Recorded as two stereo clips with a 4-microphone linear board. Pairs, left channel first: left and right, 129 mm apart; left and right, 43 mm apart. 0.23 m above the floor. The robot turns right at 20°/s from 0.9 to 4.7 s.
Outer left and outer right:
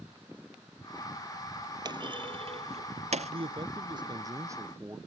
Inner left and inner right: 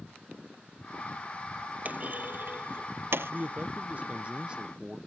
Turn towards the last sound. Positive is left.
turn(degrees=-20)  # may be behind; listen again after turning